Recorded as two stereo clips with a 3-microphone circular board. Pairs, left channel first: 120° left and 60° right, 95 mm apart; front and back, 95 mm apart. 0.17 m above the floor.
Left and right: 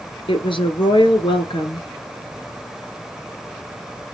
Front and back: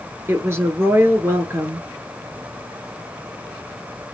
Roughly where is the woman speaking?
Behind left.